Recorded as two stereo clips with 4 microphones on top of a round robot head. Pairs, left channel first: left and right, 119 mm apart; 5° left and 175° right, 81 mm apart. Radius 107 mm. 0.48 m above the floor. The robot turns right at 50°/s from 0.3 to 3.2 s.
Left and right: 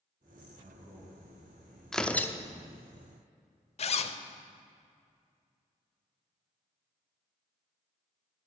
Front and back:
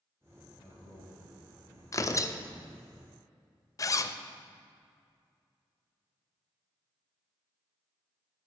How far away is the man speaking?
About 4.5 m.